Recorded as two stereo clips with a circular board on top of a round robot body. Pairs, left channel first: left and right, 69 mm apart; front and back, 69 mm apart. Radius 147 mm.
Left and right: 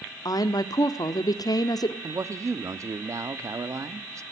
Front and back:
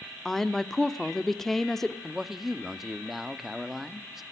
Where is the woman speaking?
85° left, 1.2 m.